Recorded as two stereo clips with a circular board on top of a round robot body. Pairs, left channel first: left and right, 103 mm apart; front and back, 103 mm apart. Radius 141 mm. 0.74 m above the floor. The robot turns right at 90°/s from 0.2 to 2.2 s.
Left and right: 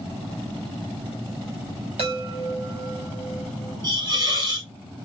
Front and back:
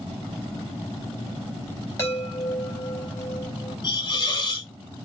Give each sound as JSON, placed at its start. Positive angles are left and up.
{"t": 2.0, "sound": "a chime", "azimuth_deg": -65, "distance_m": 1.9}
{"t": 3.8, "sound": "a hiss", "azimuth_deg": -40, "distance_m": 2.0}